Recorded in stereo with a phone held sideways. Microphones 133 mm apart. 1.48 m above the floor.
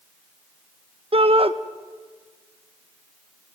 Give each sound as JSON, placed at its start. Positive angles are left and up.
{"t": 1.1, "sound": "a shout", "side_deg": -45, "distance_m": 1.2}